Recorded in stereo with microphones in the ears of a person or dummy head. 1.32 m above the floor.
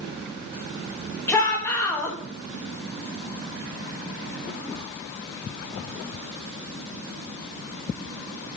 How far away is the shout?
About 1.7 m.